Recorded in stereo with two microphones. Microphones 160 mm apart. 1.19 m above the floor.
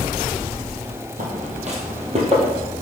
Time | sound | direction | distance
1.2 | footsteps | 50° right (ahead or behind) | 1.8 m